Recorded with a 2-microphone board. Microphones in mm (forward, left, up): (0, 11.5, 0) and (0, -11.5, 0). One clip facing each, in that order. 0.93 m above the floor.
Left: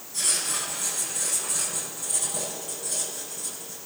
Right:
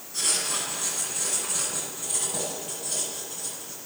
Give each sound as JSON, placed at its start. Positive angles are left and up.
{"t": 0.1, "sound": "writing", "side_deg": -10, "distance_m": 9.5}